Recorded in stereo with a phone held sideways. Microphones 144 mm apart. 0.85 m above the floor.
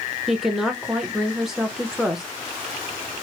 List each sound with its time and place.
0.3 s a woman speaking: centre (ahead or behind), 0.7 m